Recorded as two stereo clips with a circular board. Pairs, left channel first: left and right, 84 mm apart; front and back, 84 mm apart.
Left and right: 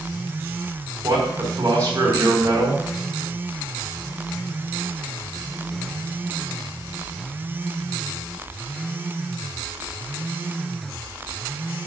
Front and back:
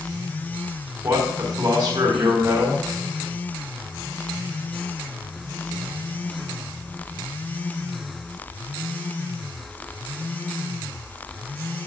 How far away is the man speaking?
About 4 m.